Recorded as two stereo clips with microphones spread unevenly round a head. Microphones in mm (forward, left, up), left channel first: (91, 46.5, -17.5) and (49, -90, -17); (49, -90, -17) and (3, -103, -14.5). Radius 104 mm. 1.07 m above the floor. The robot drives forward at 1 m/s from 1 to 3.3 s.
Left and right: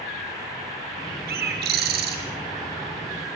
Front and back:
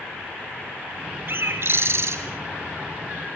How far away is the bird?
About 4 m.